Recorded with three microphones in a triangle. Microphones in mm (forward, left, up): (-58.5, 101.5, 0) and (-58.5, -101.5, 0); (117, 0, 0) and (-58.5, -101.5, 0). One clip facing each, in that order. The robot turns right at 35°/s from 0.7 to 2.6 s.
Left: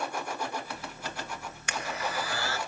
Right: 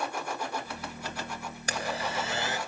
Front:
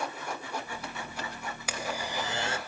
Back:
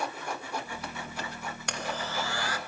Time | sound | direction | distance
1.7 | a blender | 55° right | 1.9 m